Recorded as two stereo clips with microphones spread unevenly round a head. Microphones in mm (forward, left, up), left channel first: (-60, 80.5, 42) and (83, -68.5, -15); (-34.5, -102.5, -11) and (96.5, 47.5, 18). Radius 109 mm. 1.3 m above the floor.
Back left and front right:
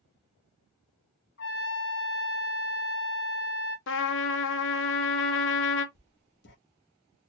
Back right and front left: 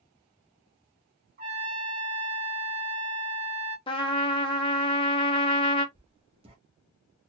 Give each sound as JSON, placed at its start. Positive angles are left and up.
{"t": 1.4, "sound": "a trumpet", "azimuth_deg": 105, "distance_m": 1.6}
{"t": 3.9, "sound": "a trumpet", "azimuth_deg": 160, "distance_m": 0.8}
{"t": 6.0, "sound": "writing", "azimuth_deg": 110, "distance_m": 1.2}